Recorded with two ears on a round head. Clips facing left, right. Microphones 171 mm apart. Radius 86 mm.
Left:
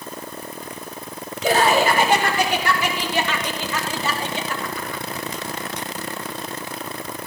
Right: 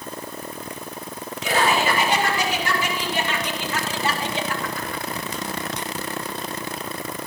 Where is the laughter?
35° left (ahead or behind), 4 m; by 5.0 s 80° left, 2.5 m.